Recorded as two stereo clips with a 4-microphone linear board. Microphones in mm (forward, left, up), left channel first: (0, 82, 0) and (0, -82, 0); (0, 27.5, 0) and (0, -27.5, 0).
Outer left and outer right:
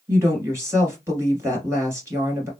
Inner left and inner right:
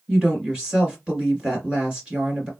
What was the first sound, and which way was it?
A woman speaking, 15° right (ahead or behind).